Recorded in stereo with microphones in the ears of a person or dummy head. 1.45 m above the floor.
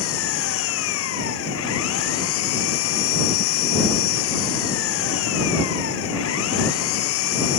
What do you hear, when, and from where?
0.0 s an engine running: 75° left (ahead or behind)